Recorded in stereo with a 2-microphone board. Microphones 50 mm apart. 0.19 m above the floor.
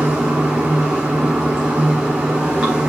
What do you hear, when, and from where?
0.0 s running water: 20° right (ahead or behind), 3 m